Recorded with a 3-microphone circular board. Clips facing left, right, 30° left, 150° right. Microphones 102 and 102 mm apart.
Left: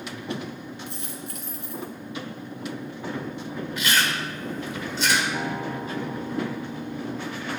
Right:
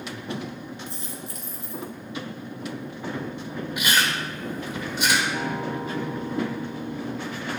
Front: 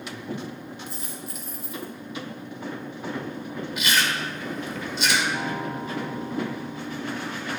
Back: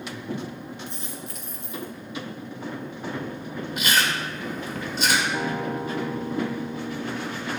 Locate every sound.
0.9 s a dropped coin: 115° left, 2.5 m
3.8 s chewing: 160° right, 1.9 m
5.3 s a guitar: 155° left, 1.0 m